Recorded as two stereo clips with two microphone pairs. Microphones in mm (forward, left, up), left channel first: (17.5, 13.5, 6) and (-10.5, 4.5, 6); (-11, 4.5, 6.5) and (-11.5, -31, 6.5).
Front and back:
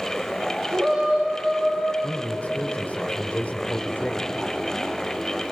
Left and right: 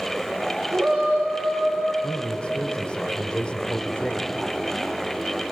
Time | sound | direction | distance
0.7 | a shout | 115° right | 6 m
2.0 | a man speaking | 35° left | 1.8 m